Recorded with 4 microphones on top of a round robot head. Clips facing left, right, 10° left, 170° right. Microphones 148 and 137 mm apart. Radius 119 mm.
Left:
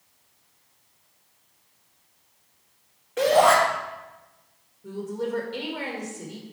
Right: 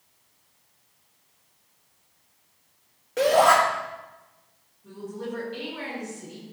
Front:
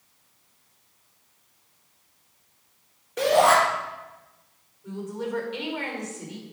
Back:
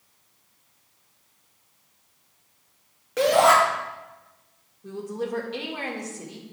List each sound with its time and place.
3.2 s a shout: 145° right, 2 m
4.8 s a woman speaking: 140° left, 1.8 m